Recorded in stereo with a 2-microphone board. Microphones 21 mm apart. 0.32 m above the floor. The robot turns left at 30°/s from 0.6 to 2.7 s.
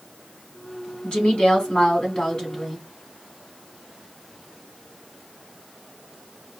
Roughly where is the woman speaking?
Left.